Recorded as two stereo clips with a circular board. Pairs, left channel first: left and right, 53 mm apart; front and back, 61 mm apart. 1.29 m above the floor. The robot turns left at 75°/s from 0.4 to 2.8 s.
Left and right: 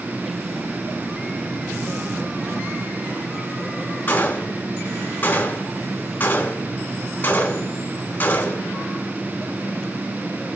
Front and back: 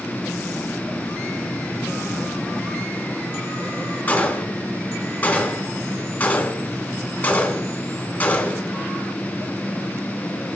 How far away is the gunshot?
About 1.4 m.